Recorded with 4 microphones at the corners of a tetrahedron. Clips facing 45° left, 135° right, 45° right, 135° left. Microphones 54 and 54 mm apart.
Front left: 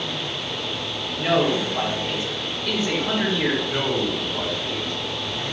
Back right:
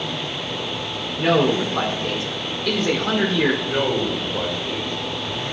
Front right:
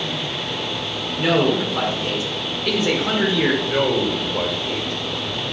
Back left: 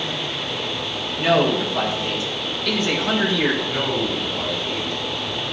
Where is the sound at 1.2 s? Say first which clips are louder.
Back right 3 dB, even; 110° right, 3 m.